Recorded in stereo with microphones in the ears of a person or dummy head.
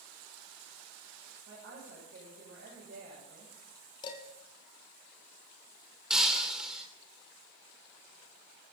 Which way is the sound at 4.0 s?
35° left (ahead or behind).